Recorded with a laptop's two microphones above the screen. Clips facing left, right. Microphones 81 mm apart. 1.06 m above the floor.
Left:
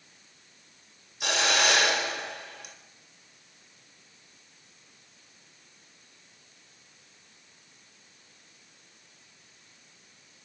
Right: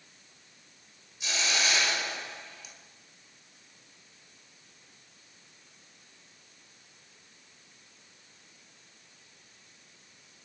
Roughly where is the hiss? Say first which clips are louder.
Left 6 dB; left.